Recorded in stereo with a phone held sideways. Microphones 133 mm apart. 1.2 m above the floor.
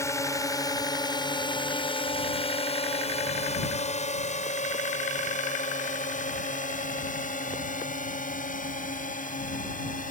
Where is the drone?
20° left (ahead or behind); by 10.1 s 85° left.